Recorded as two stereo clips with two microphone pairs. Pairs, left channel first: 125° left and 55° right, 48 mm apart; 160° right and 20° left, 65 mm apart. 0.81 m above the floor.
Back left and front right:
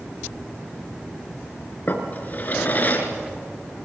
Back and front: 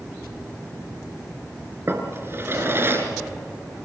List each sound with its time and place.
1.9 s a drawer: 75° left, 3.5 m